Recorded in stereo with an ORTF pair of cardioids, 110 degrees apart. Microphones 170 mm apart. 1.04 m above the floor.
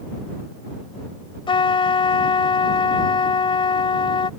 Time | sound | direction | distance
1.5 | a trumpet | 30° left | ?